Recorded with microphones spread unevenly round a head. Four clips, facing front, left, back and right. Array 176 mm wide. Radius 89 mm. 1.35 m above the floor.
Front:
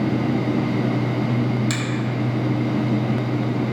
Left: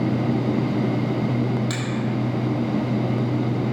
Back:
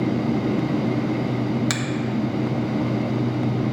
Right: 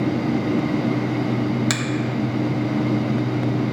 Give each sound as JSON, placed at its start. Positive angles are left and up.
{"t": 1.7, "sound": "a finger snap", "azimuth_deg": -115, "distance_m": 1.6}